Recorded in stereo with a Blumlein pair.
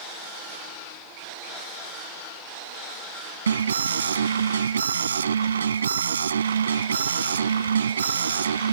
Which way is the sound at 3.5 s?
70° right.